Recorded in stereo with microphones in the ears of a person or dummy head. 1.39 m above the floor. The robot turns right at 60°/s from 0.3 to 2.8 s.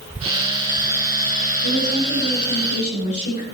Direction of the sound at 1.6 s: 70° left.